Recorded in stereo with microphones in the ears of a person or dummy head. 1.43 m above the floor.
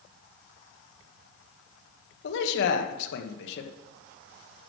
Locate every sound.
2.2 s a man speaking: 65° left (ahead or behind), 1.4 m